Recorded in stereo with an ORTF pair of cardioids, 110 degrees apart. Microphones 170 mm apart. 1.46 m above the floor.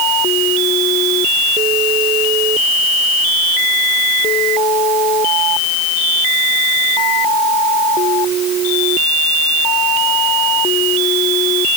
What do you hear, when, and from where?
Only background noise.